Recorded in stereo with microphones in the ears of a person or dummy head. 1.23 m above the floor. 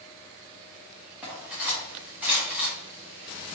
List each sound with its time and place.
1.2 s cutlery clinking: 10° right (ahead or behind), 1.3 m